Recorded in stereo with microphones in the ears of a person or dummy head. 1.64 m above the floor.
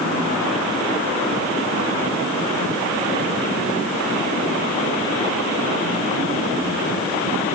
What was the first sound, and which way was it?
Only background noise.